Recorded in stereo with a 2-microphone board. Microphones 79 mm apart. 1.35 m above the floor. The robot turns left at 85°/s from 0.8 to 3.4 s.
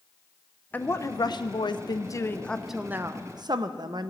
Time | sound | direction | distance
0.7 | a woman speaking | 155° left | 0.6 m